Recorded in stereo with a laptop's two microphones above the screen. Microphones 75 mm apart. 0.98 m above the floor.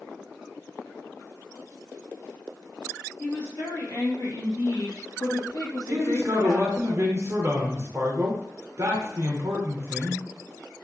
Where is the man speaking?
35° right (ahead or behind), 0.6 m.